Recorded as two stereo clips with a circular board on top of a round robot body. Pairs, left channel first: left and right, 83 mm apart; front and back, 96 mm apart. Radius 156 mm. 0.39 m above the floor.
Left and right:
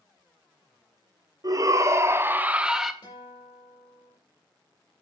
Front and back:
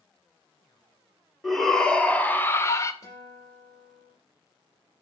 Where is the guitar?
60° left, 6.5 m.